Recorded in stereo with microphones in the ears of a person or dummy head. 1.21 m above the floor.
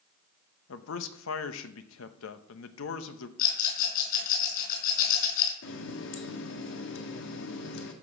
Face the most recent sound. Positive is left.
turn(degrees=70)  # may be behind; listen again after turning